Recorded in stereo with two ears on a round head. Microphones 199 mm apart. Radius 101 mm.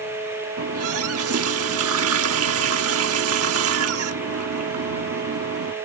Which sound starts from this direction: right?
A running tap, at 0.6 s.